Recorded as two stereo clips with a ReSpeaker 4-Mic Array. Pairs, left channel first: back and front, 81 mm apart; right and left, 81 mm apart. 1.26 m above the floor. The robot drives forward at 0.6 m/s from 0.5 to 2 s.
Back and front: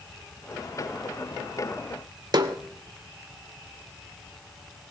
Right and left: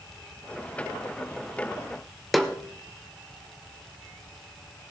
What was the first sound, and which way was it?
A snare drum, straight ahead.